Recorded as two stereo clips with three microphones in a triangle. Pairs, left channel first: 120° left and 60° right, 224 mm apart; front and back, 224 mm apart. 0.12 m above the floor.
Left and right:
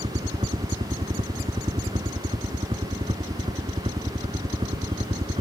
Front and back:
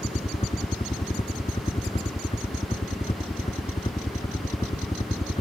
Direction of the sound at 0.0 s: 30° right.